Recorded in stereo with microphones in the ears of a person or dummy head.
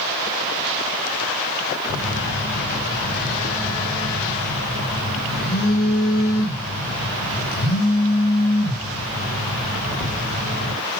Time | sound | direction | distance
1.9 | a phone buzzing | 55° left (ahead or behind) | 1.8 m